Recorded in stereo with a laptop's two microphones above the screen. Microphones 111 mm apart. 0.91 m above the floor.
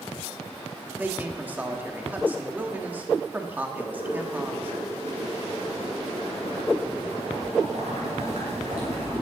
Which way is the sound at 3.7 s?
85° right.